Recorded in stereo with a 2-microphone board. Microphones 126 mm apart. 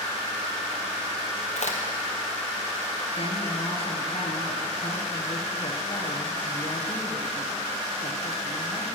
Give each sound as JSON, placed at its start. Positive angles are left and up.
{"t": 1.6, "sound": "a crack", "side_deg": 75, "distance_m": 2.0}
{"t": 3.2, "sound": "a woman speaking", "side_deg": 55, "distance_m": 3.0}